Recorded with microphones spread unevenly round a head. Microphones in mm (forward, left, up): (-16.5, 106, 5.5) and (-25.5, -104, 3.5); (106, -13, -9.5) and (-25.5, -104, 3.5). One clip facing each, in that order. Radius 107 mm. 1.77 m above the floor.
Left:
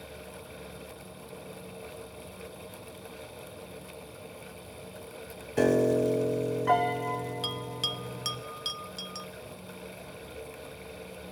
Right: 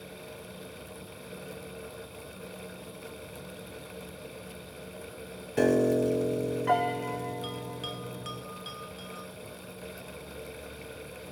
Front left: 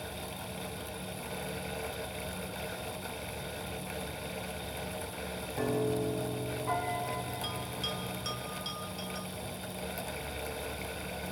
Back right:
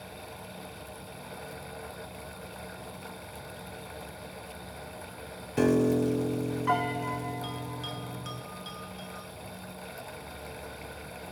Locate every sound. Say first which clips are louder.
5.6 s a piano: even, back right 8 dB; straight behind, 0.8 m
7.4 s a bell: even, back right 1 dB; 115° left, 1.1 m